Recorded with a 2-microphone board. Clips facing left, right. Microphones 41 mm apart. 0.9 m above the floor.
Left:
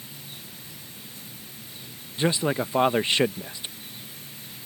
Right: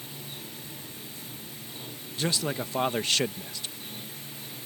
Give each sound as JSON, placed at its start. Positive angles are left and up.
{"t": 0.0, "sound": "running water", "side_deg": -35}
{"t": 2.2, "sound": "a man speaking", "side_deg": 20}